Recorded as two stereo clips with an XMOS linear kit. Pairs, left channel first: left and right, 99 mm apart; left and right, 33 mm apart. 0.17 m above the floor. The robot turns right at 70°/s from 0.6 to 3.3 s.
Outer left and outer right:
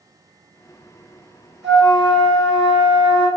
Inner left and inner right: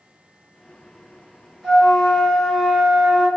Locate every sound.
1.6 s a flute: 5° left (ahead or behind), 1.8 m; by 3.3 s 25° right (ahead or behind), 1.8 m